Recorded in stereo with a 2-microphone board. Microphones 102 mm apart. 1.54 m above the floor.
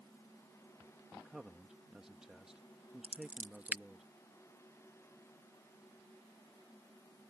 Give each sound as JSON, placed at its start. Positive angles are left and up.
{"t": 1.1, "sound": "a man speaking", "side_deg": -5}
{"t": 3.0, "sound": "scissors", "side_deg": -15}